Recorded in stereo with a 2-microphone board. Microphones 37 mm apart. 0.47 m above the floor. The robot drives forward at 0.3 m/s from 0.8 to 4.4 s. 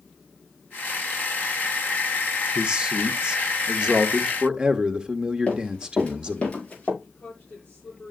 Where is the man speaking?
25° right (ahead or behind), 1.2 m.